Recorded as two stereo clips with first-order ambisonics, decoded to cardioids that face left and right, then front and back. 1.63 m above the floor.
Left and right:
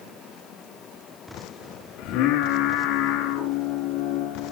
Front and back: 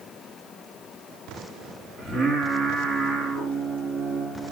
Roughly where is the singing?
Left.